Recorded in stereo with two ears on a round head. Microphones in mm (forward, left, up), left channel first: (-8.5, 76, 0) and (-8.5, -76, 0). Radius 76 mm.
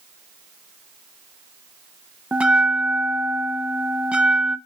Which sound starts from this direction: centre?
A bell, at 2.3 s.